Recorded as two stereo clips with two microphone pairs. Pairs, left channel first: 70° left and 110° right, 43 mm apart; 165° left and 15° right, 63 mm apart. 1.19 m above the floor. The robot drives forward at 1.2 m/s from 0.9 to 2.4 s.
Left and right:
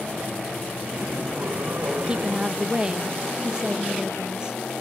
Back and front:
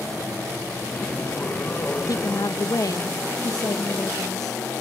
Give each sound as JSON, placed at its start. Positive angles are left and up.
{"t": 2.1, "sound": "a woman speaking", "azimuth_deg": -175}